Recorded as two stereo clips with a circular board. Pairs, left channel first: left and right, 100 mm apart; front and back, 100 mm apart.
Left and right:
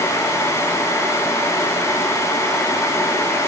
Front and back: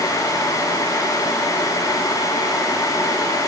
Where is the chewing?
No chewing in this recording.